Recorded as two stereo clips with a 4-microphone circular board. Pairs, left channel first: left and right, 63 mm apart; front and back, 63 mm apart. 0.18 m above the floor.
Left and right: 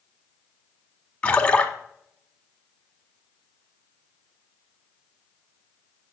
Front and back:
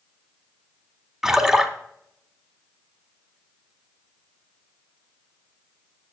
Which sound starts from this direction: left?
A splash, at 1.2 s.